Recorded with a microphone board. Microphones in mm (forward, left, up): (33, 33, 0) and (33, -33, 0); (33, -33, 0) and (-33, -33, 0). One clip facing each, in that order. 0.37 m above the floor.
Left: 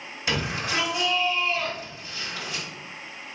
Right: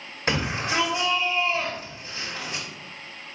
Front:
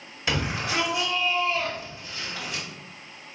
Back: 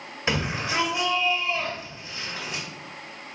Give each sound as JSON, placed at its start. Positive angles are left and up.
{"t": 0.3, "sound": "a shout", "azimuth_deg": -125, "distance_m": 1.8}